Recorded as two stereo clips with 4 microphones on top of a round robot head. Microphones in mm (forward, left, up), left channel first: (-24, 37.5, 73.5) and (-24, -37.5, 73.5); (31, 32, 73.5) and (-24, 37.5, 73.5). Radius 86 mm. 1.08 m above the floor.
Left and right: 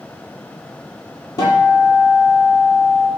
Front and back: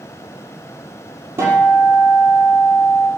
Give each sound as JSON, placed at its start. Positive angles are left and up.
{"t": 1.4, "sound": "a guitar", "azimuth_deg": 130, "distance_m": 5.5}